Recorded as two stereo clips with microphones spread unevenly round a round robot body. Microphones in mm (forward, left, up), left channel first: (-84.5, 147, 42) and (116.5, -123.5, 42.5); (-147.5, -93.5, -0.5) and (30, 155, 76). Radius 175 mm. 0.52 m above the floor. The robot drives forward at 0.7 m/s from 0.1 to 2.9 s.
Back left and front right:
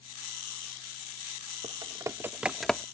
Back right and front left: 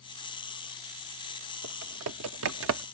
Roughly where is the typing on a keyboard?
Ahead.